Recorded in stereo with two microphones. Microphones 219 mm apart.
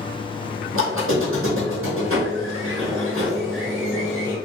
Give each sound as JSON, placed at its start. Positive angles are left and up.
{"t": 0.7, "sound": "a squeak", "side_deg": -70, "distance_m": 2.0}